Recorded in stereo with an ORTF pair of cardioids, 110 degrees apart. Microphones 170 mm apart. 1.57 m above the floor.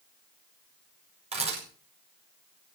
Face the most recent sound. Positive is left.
turn(degrees=-35)